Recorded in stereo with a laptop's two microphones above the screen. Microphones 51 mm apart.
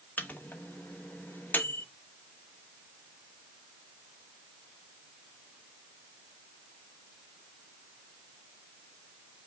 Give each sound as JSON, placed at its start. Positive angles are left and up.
{"t": 0.2, "sound": "a microwave", "side_deg": 40, "distance_m": 1.0}